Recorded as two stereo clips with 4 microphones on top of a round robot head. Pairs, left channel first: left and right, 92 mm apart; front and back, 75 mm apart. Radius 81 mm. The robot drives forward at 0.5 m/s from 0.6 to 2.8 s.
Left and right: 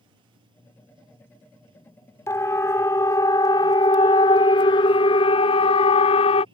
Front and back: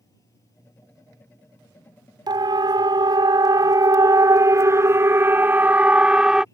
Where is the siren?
155° left; by 6.5 s 100° left.